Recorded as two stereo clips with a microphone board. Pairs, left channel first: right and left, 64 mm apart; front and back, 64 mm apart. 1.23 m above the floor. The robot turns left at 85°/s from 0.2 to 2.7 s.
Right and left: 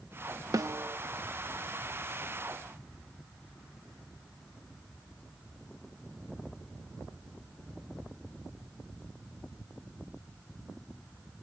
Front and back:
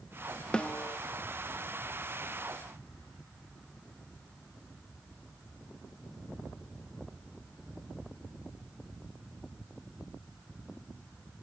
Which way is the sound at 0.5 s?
75° left.